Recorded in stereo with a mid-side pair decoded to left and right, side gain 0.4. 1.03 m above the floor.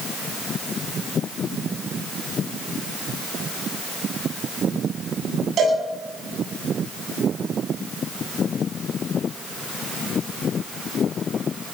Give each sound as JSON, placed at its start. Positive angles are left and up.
{"t": 5.6, "sound": "a cowbell", "azimuth_deg": -65, "distance_m": 9.0}